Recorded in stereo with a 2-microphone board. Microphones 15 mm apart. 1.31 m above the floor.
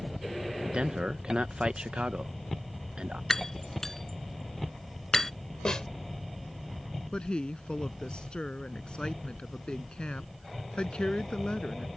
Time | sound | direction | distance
0.7 | a man speaking | 80° right | ?
3.3 | breaking glass | 25° left (ahead or behind) | ?
5.7 | a snare drum | 50° left (ahead or behind) | ?
7.1 | a woman speaking | 60° left (ahead or behind) | ?